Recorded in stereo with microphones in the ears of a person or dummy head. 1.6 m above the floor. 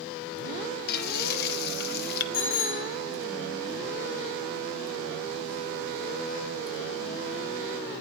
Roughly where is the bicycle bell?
Left.